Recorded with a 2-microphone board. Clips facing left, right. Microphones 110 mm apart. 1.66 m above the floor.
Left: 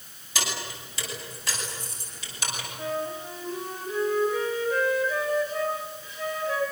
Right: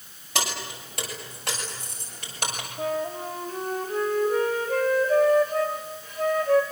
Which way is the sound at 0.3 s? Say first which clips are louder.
Right 3 dB; 60° right (ahead or behind).